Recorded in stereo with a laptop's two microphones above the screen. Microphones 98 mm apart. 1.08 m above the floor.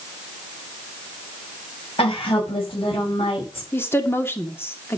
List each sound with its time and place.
2.0 s a woman speaking: 70° left (ahead or behind), 7.5 m; by 3.6 s 75° left (ahead or behind), 6 m
3.7 s a woman speaking: 25° left (ahead or behind), 2 m